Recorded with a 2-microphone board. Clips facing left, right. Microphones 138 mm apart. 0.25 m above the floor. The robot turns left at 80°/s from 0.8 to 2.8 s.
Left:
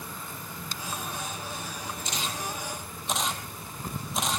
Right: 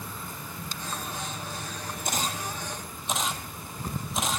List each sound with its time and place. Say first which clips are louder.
2.0 s a camera shutter: right 4 dB; 60° right (ahead or behind), 2 m; by 4.4 s centre (ahead or behind), 2 m